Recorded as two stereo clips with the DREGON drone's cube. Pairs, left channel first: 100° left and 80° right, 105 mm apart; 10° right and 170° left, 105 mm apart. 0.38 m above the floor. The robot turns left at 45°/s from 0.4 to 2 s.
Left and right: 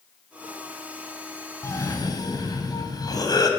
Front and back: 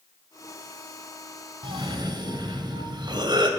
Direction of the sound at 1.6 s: 155° left.